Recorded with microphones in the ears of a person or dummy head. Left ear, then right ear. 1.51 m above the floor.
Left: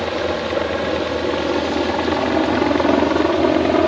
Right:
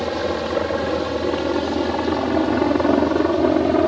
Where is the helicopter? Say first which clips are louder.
Left 2 dB; 5° right (ahead or behind); by 3.9 s 10° left (ahead or behind).